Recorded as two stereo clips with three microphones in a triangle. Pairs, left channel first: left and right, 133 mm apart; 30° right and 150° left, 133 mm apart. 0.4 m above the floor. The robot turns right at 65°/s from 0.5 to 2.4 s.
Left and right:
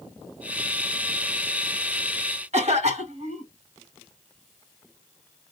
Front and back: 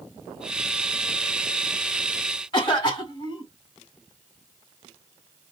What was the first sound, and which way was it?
A cough, 75° right.